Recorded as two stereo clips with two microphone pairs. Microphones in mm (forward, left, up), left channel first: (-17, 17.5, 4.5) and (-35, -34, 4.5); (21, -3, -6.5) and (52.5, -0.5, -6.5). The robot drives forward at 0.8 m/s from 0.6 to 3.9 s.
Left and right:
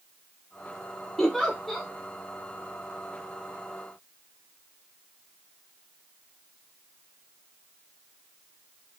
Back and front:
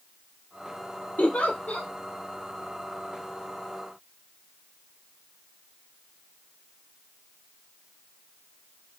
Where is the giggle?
160° left, 1.3 m; by 1.9 s 165° left, 1.8 m.